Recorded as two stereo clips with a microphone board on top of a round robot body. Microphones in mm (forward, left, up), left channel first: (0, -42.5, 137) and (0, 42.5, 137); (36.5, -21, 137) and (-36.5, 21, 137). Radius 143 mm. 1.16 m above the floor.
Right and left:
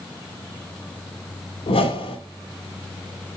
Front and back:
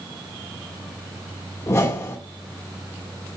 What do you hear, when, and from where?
1.7 s a whoosh: 90° right, 3 m